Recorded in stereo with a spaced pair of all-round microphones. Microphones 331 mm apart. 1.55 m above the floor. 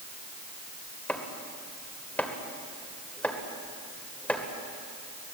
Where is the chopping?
5° left (ahead or behind), 2 m.